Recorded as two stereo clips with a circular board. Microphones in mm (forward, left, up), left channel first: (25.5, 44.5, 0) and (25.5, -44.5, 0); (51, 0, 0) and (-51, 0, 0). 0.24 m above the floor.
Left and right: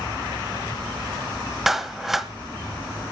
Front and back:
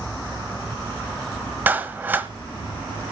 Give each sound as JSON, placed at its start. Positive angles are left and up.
{"t": 1.7, "sound": "a clap", "azimuth_deg": -170, "distance_m": 1.2}